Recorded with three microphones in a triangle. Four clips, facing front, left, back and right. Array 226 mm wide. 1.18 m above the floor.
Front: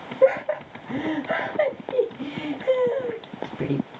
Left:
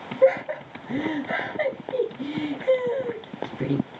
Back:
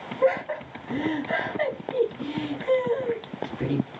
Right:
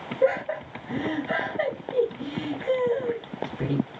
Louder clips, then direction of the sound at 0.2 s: Left 4 dB, front 4 dB; 5° left.